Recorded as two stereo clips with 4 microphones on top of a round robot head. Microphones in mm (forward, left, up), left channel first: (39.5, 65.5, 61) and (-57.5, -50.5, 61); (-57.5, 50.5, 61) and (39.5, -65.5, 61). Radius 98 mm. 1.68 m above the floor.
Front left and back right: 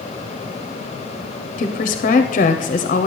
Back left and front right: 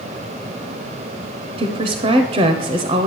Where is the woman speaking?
5° left, 0.6 m.